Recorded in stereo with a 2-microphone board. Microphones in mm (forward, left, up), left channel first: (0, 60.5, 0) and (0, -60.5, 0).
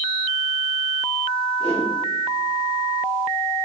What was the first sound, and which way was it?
A whoosh, 55° left (ahead or behind).